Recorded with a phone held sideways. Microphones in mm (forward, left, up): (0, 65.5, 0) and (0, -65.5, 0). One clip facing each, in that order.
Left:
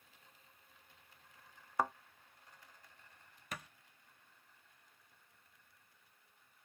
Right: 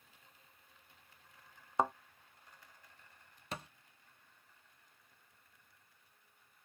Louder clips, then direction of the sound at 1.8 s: Right 3 dB; 20° right (ahead or behind).